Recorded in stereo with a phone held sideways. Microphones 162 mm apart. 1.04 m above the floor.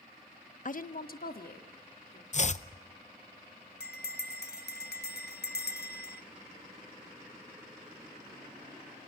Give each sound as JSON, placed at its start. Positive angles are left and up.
{"t": 0.7, "sound": "a woman speaking", "side_deg": 55, "distance_m": 0.6}
{"t": 2.3, "sound": "chopping", "side_deg": 45, "distance_m": 0.6}
{"t": 3.8, "sound": "a bell", "side_deg": 80, "distance_m": 1.1}